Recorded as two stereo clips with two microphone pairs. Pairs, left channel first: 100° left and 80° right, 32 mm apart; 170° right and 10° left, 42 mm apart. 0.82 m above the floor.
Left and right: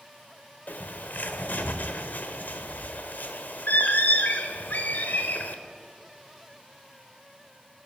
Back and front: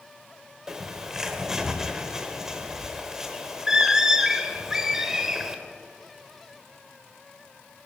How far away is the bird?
About 1.0 m.